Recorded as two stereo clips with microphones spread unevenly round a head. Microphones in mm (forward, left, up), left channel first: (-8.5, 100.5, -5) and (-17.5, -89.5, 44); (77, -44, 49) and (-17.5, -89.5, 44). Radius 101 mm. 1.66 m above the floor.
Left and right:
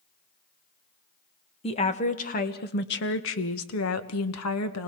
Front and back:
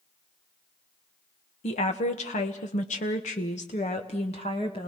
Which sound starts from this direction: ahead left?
A woman speaking, at 1.6 s.